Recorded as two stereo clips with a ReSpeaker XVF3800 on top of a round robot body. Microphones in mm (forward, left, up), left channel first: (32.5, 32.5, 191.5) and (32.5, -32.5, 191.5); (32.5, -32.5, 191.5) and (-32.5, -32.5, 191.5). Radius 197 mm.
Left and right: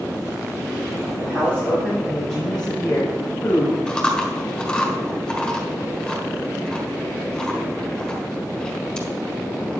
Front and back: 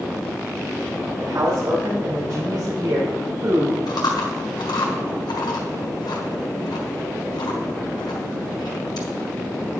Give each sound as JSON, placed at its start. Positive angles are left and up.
{"t": 1.2, "sound": "a man speaking", "azimuth_deg": -150, "distance_m": 4.5}
{"t": 3.9, "sound": "chewing", "azimuth_deg": 10, "distance_m": 1.4}